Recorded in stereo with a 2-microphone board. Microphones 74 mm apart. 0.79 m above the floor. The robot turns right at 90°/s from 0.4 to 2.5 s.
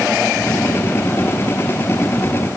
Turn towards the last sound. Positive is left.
No sound to turn to.